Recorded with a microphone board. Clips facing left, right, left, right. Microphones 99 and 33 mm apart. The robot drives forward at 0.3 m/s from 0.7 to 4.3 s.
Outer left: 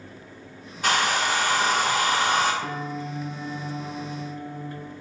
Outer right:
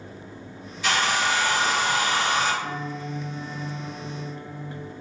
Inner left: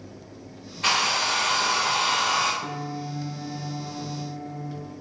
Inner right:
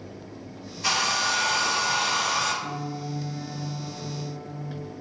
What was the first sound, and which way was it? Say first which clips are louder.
A hair dryer: even, inner left 2 dB; 45° left (ahead or behind).